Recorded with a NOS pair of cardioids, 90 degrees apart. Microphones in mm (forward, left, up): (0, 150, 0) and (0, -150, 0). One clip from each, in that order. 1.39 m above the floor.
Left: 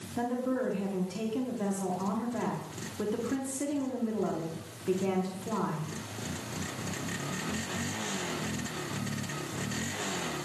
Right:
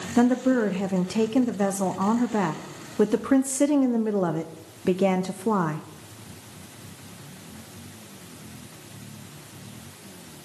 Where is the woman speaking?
65° right, 0.9 m.